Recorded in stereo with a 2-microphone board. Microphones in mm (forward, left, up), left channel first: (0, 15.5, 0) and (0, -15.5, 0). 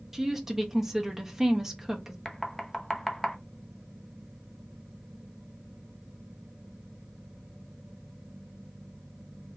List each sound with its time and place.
0.1 s a woman speaking: 15° right (ahead or behind), 1.1 m
2.2 s knocking: 10° left (ahead or behind), 0.7 m